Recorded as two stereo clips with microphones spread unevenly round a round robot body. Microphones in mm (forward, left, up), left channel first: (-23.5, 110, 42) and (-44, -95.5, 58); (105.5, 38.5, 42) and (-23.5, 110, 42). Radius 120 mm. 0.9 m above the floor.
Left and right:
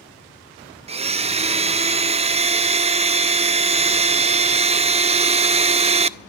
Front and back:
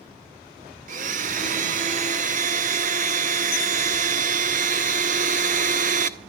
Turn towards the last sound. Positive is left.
turn(degrees=-160)